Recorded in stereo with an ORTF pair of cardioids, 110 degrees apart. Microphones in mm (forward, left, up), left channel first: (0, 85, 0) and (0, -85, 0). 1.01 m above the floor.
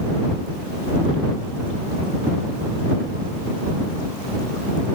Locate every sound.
Only background noise.